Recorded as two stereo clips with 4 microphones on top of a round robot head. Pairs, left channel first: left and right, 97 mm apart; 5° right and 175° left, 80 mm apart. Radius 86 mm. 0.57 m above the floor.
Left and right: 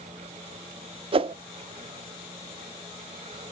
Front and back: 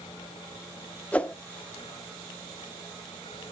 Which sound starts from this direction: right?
A whoosh, at 1.1 s.